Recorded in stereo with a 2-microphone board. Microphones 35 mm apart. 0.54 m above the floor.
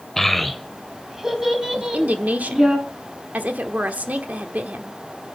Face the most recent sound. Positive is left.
turn(degrees=-50)  # may be behind; listen again after turning